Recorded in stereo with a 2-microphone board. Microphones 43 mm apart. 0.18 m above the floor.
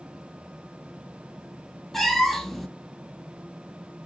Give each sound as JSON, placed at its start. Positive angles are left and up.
{"t": 1.9, "sound": "a cat meowing", "side_deg": 5, "distance_m": 0.6}